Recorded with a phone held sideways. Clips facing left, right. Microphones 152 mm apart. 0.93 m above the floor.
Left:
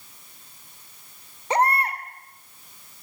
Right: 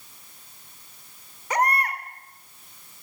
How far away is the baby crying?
About 2.5 m.